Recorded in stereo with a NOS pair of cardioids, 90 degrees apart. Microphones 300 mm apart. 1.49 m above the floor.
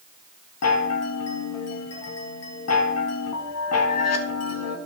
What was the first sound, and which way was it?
A chime, 60° left.